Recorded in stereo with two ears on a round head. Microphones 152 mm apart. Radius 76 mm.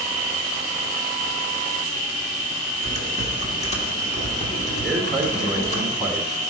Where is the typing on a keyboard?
40° left (ahead or behind), 1.4 m.